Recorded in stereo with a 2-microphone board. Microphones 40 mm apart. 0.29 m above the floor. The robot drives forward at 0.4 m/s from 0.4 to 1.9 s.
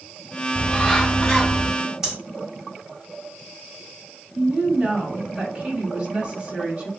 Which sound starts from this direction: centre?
Breathing, at 2.0 s.